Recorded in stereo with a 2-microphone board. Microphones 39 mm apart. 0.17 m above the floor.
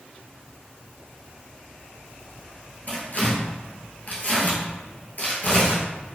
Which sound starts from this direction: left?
Tearing paper, at 2.9 s.